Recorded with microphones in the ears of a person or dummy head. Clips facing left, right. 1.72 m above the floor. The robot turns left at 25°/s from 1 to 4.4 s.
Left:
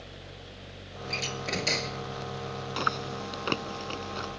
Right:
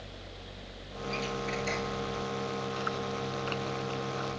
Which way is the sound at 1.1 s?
70° left (ahead or behind).